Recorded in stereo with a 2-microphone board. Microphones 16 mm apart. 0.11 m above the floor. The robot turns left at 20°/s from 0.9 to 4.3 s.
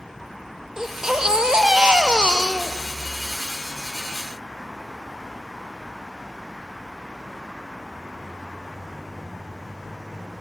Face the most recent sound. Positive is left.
turn(degrees=-105)